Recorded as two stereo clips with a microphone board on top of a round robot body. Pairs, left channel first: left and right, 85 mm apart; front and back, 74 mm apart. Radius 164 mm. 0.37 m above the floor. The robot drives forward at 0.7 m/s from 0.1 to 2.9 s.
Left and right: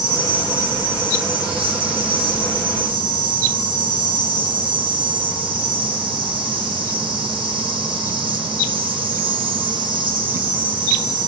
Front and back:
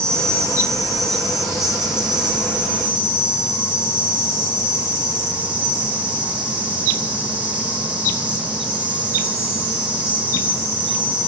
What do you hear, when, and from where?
0.0 s an insect: 80° right, 4.5 m; by 11.3 s 105° right, 4.5 m